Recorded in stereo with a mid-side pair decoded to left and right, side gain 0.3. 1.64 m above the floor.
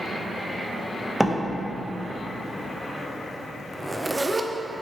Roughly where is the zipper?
Ahead right.